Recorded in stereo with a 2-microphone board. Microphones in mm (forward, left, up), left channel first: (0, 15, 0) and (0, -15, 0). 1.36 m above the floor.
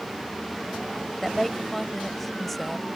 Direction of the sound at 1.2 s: Centre (ahead or behind).